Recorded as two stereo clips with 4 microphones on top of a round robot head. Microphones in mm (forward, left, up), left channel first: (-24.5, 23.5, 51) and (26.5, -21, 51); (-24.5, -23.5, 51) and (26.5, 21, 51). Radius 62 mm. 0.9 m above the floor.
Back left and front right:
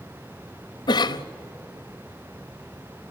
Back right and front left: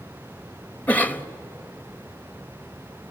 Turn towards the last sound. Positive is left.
turn(degrees=155)